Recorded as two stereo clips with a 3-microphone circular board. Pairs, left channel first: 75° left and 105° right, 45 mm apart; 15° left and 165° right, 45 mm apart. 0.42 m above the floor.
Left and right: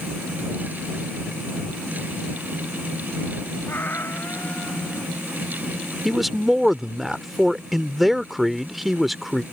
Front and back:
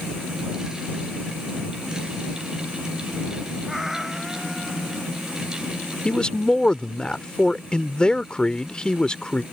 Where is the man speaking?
25° right.